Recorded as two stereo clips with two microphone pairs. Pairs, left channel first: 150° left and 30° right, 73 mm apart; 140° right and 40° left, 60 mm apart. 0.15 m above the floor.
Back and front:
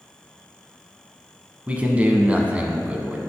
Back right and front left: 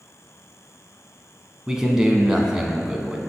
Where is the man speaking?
20° right, 1.0 m.